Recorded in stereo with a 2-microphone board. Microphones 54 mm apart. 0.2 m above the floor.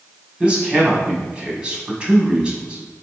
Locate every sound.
0.4 s a man speaking: 20° right (ahead or behind), 1.1 m